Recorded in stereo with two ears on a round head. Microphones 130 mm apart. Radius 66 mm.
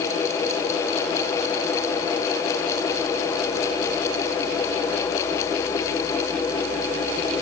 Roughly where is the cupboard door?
I don't hear a cupboard door.